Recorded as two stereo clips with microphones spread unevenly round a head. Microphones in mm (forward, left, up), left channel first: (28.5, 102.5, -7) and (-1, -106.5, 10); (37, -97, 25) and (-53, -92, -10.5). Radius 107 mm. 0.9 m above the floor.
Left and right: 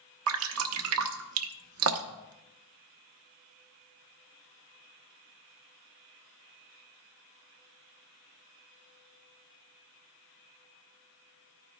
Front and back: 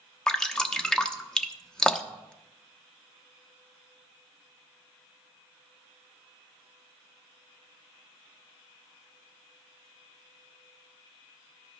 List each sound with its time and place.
0.3 s dripping: 80° right, 0.7 m